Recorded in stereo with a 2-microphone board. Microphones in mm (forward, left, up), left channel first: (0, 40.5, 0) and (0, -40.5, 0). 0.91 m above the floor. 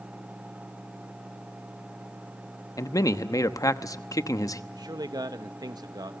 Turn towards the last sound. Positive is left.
turn(degrees=-55)  # may be behind; listen again after turning